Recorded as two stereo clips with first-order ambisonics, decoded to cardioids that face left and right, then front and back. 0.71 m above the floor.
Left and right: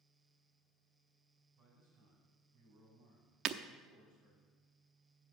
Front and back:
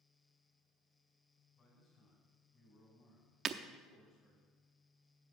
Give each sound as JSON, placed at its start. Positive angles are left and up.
{"t": 1.6, "sound": "a man speaking", "azimuth_deg": -80, "distance_m": 6.0}
{"t": 3.5, "sound": "breaking glass", "azimuth_deg": -125, "distance_m": 0.6}